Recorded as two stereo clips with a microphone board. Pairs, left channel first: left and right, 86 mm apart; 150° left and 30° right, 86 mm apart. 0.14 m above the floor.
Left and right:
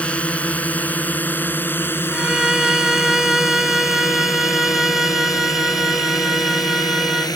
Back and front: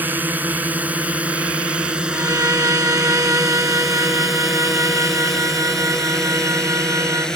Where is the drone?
25° left; by 7.4 s 70° left.